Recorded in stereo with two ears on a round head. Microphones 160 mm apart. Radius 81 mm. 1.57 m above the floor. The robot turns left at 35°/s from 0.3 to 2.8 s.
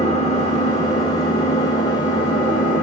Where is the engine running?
15° left (ahead or behind), 1.2 m.